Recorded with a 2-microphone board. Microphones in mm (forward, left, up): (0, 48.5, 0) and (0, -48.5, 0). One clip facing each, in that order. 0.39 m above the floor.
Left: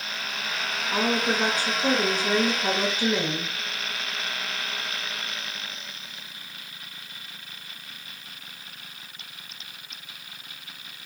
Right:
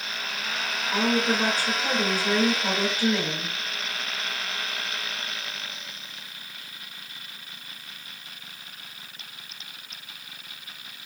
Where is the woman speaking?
20° left (ahead or behind), 1.1 m.